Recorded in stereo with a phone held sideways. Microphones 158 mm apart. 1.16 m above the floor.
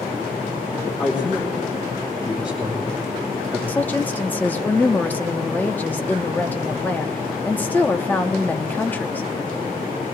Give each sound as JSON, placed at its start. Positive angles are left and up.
{"t": 1.0, "sound": "a man speaking", "side_deg": 30, "distance_m": 3.0}
{"t": 3.7, "sound": "a woman speaking", "side_deg": 10, "distance_m": 0.9}